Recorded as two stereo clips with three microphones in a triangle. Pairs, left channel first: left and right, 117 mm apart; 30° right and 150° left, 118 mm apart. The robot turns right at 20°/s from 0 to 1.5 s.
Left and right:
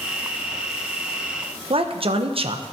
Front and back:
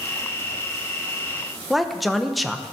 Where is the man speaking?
120° right, 0.9 m.